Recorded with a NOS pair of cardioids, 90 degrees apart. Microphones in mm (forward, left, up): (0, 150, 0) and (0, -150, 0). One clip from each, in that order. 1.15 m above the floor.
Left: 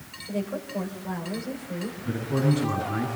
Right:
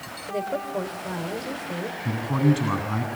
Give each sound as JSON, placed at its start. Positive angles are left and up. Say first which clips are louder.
{"t": 0.3, "sound": "a woman speaking", "louder": "right 4 dB", "azimuth_deg": -40, "distance_m": 5.5}
{"t": 2.0, "sound": "a man speaking", "louder": "right 2 dB", "azimuth_deg": -55, "distance_m": 9.0}